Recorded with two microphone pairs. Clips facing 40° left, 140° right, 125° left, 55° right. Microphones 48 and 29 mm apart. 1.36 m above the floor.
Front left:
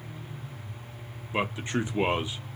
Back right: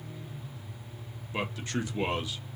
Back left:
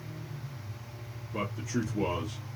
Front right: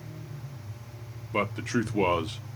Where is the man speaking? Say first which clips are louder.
Front left 4 dB, front right 6 dB; 30° right, 0.6 m.